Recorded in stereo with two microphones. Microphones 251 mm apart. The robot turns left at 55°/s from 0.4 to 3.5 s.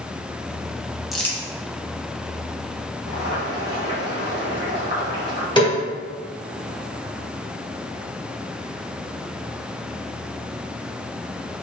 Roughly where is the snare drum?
Centre.